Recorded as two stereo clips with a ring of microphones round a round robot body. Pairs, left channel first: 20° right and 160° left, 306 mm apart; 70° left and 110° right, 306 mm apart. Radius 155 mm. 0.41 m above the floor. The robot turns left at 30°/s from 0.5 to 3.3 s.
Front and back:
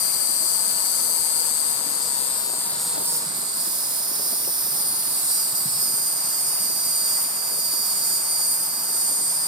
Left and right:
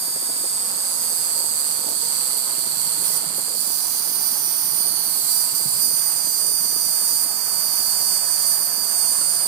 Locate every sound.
0.0 s an insect: 40° right, 0.9 m; by 9.5 s 125° right, 0.9 m